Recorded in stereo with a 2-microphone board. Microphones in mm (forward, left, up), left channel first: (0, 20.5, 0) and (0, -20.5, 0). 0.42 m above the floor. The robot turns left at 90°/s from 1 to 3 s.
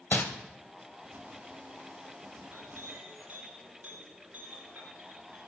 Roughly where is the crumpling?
Left.